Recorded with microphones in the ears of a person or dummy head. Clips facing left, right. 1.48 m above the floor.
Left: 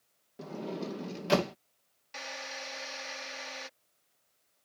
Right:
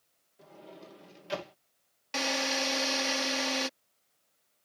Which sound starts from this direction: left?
A sliding door, at 0.4 s.